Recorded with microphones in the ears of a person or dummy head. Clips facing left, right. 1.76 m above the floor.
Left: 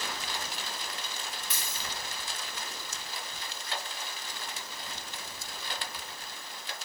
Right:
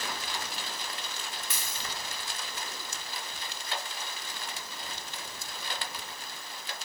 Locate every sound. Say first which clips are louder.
1.5 s a dropped coin: even; 50° right (ahead or behind), 2 m